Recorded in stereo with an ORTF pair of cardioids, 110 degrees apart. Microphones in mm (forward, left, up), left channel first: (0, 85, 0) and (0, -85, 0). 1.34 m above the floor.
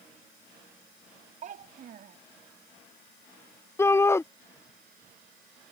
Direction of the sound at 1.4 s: 50° right.